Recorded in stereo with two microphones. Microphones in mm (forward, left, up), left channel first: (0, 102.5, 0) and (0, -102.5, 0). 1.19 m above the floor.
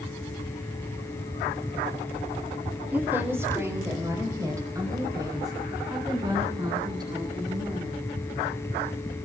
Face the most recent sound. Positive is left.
turn(degrees=-20)  # may be behind; listen again after turning